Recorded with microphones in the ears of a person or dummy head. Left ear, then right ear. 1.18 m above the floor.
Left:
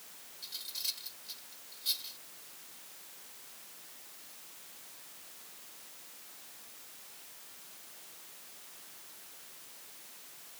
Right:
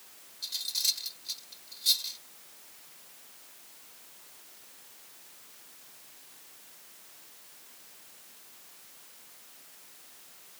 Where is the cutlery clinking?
30° right (ahead or behind).